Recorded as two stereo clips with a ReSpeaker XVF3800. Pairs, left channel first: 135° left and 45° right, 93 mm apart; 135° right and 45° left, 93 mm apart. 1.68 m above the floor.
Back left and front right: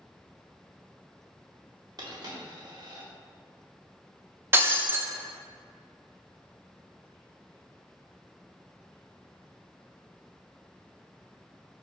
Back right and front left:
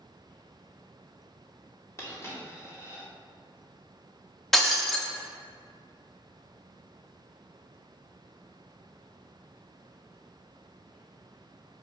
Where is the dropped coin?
80° right, 2 m.